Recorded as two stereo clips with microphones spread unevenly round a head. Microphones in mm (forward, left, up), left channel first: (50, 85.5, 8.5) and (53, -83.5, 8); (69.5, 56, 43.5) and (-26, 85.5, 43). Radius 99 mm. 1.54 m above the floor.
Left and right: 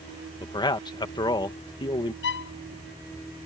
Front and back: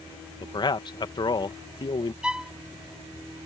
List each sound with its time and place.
0.4 s a man speaking: 25° left
2.2 s a violin: 80° left